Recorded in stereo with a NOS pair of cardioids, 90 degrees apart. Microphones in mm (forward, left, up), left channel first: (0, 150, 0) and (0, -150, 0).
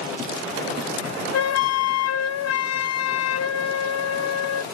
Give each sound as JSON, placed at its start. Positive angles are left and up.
{"t": 1.3, "sound": "a flute", "azimuth_deg": 55}